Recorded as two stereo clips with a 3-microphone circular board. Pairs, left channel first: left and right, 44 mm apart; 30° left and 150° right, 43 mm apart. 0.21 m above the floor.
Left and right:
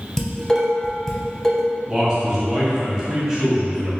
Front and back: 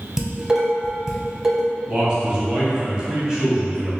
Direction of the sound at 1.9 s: 130° right.